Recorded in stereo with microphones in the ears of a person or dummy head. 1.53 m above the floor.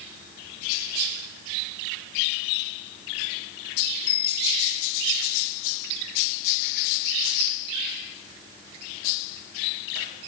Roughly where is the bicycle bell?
Left.